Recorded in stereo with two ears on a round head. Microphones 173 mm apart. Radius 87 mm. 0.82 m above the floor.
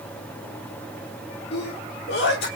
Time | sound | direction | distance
1.5 | a sneeze | 60° left (ahead or behind) | 1.6 m